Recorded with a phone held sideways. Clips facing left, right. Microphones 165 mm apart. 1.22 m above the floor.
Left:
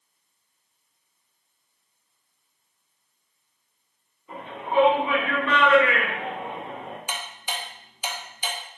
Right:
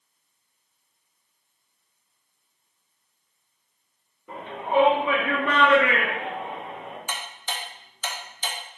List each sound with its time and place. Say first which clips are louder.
4.3 s a shout: right 3 dB; 70° right (ahead or behind), 1.5 m; by 7.0 s 45° left (ahead or behind), 0.7 m
7.1 s ticking: left 1 dB; 10° left (ahead or behind), 0.6 m